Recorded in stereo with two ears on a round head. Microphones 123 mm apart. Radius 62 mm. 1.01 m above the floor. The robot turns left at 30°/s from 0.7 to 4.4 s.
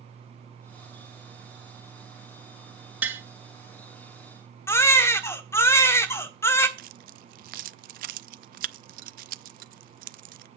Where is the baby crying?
20° left (ahead or behind), 1.2 m.